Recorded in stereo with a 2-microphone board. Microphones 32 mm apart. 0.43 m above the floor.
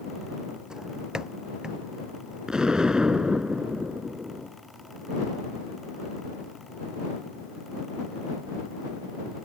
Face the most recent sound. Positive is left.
turn(degrees=-25)  # may be behind; listen again after turning